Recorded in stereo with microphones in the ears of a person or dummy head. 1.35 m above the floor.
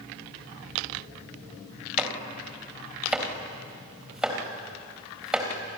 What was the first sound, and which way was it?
Chopping, 5° right (ahead or behind).